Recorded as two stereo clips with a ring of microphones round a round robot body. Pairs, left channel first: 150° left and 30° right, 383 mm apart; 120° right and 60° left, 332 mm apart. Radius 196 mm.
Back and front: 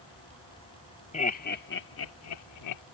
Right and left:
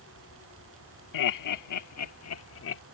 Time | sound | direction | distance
1.1 | laughter | 140° right | ?